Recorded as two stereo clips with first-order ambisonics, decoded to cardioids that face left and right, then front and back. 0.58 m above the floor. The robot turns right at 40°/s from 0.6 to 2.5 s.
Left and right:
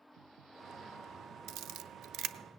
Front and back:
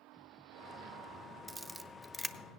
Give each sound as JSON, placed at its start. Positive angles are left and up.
{"t": 1.5, "sound": "a camera shutter", "azimuth_deg": -105, "distance_m": 0.5}